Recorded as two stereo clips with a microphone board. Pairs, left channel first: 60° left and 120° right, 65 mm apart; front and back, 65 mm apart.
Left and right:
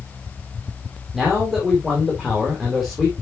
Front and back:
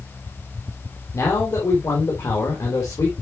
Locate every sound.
1.1 s a man speaking: 35° right, 2.5 m